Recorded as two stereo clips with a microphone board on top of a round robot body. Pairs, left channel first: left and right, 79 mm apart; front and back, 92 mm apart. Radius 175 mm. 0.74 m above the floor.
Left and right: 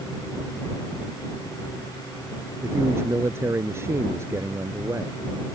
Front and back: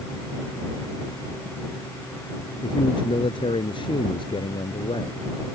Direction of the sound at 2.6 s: 30° right.